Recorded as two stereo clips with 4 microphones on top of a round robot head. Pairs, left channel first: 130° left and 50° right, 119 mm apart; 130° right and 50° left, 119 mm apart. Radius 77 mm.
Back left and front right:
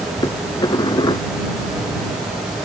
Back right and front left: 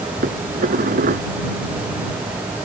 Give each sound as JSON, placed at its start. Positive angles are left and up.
{"t": 0.2, "sound": "dishes clattering", "azimuth_deg": 70}